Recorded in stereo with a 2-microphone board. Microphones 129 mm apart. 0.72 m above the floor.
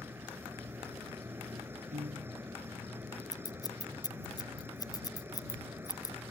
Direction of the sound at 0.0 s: 20° right (ahead or behind).